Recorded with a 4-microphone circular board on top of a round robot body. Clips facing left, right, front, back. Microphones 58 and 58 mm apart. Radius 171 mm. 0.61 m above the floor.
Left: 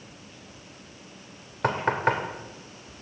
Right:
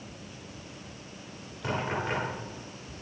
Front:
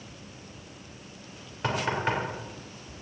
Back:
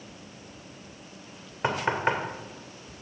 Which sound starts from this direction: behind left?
Knocking, at 1.6 s.